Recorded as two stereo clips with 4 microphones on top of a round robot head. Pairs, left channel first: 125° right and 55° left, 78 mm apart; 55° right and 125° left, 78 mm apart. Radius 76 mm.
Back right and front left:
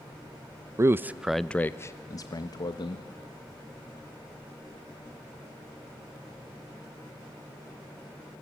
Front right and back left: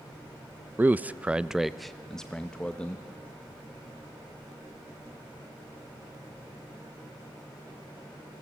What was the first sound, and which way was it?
A man speaking, 75° left.